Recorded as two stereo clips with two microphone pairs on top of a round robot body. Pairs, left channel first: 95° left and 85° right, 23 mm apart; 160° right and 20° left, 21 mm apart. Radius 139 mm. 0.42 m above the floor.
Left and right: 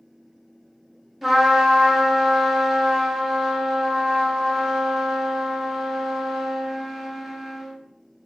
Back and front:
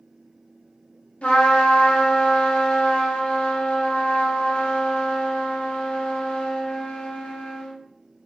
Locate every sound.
1.2 s a trumpet: 160° right, 0.5 m